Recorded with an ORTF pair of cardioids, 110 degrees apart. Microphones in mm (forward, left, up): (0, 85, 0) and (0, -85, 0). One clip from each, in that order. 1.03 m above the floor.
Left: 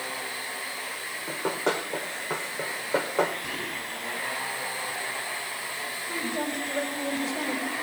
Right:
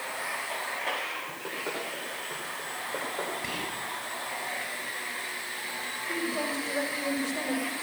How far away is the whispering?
About 9 m.